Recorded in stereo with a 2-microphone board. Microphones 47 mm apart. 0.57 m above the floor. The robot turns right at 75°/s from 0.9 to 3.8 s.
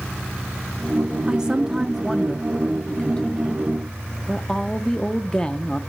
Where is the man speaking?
20° right (ahead or behind), 0.6 m; by 5.8 s 15° left (ahead or behind), 0.6 m.